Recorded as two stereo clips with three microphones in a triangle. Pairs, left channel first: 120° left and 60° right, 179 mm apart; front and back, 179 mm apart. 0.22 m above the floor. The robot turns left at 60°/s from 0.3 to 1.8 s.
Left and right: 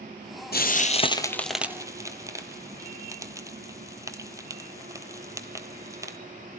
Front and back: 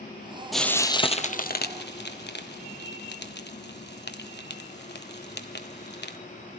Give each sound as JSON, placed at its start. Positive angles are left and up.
{"t": 0.5, "sound": "frying", "azimuth_deg": 90, "distance_m": 1.3}